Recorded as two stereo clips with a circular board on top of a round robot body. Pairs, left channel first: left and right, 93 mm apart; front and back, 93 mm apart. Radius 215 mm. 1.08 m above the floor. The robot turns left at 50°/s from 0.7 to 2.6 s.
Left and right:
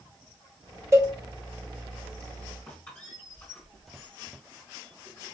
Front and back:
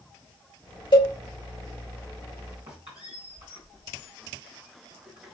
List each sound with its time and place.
0.9 s a cowbell: 30° right, 2.5 m; by 1.1 s 40° right, 2.5 m
2.7 s a squeak: 160° left, 1.1 m